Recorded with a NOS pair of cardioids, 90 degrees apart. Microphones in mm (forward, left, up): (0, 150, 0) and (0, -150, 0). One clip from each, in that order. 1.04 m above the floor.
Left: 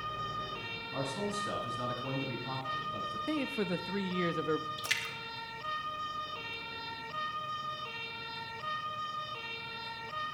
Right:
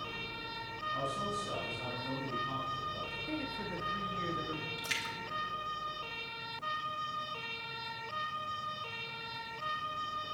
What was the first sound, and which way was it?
A man speaking, 55° left.